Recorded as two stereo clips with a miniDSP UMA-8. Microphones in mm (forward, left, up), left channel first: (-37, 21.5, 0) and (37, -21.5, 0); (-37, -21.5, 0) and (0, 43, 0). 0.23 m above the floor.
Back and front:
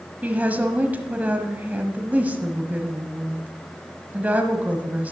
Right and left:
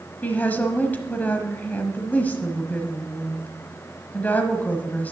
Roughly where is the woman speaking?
Right.